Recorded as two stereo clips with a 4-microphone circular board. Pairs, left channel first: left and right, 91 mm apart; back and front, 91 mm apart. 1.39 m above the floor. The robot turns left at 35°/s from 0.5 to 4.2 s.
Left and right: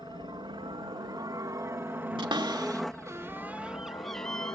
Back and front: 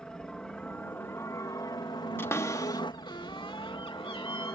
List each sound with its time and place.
0.0 s a helicopter: 100° right; by 4.6 s 130° left
2.2 s a cupboard door: 115° right; by 4.6 s 175° left